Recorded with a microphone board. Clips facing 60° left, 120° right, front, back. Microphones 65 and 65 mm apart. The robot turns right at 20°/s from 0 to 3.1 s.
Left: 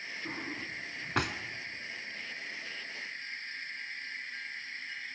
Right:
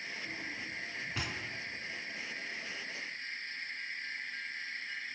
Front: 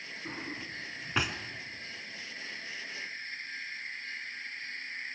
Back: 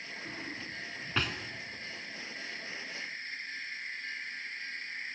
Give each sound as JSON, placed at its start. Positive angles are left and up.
{"t": 0.2, "sound": "a drawer", "azimuth_deg": 60, "distance_m": 1.3}